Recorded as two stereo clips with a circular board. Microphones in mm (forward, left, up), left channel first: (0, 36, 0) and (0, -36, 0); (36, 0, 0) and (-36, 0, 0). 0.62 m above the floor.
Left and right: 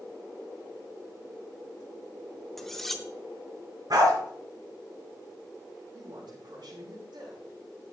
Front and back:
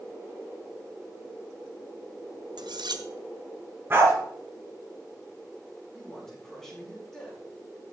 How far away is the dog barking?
About 4 m.